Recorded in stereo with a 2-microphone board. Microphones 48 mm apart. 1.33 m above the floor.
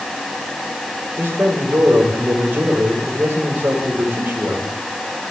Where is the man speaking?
45° right (ahead or behind), 5 m.